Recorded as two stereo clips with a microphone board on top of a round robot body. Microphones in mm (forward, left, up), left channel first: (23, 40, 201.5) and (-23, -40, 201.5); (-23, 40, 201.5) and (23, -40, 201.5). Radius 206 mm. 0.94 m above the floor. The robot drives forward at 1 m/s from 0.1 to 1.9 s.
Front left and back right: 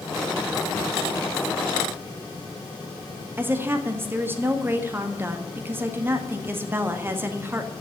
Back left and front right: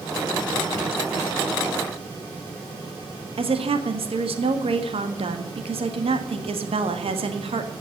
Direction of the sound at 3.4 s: 55° right.